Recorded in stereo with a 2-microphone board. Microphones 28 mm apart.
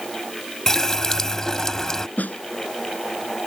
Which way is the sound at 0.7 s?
20° left (ahead or behind).